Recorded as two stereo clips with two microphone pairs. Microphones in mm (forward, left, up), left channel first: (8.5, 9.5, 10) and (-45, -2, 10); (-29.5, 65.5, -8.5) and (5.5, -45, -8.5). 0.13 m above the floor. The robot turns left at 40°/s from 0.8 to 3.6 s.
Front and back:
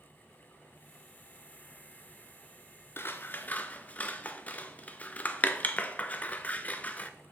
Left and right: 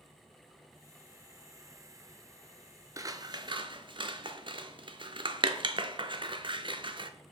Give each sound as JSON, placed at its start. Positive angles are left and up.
{"t": 3.0, "sound": "scissors", "azimuth_deg": -15, "distance_m": 0.5}